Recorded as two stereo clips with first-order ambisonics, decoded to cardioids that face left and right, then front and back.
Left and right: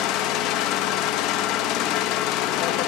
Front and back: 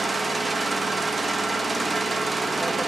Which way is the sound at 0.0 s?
100° left.